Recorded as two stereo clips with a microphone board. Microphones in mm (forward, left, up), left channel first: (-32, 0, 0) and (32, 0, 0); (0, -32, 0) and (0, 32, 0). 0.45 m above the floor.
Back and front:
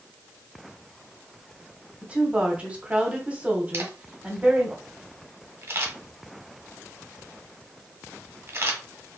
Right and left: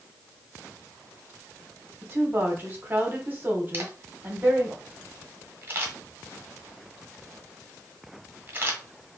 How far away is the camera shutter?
About 1.3 m.